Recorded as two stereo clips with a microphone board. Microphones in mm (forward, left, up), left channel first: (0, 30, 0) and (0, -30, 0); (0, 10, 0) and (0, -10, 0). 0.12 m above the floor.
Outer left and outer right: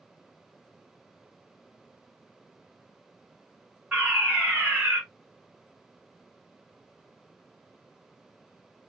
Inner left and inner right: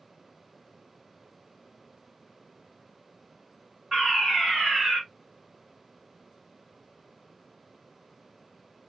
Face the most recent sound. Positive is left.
turn(degrees=-20)  # may be behind; listen again after turning